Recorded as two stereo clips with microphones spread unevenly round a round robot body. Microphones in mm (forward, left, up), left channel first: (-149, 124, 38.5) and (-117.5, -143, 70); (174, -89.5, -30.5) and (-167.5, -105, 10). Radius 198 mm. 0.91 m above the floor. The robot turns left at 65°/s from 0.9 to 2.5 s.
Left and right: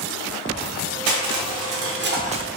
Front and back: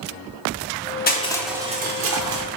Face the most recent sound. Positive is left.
turn(degrees=-160)